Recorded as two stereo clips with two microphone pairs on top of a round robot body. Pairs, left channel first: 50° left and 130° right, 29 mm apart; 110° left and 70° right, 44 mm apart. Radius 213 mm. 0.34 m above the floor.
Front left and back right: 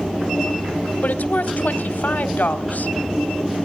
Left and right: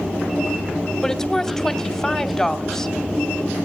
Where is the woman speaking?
30° left, 2 m.